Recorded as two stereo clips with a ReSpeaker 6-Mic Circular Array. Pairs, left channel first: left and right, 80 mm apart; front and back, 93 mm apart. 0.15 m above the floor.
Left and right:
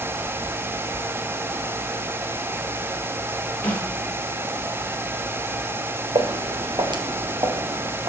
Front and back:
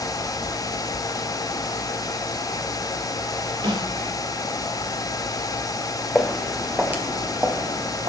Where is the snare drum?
160° left, 2.5 m.